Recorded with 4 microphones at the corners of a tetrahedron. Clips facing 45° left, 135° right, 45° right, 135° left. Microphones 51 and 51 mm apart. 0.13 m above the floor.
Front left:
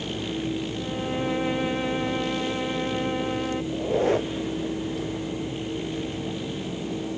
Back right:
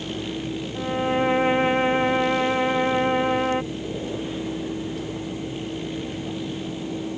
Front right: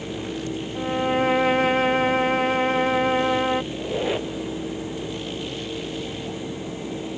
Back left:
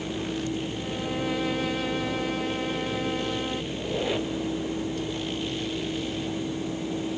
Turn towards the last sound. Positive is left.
turn(degrees=35)